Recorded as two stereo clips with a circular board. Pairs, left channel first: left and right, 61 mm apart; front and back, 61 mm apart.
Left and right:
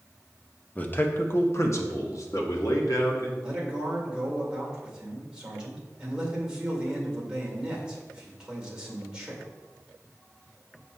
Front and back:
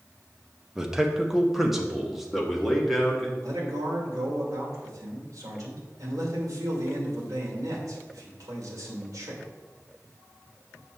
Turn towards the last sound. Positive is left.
turn(degrees=-165)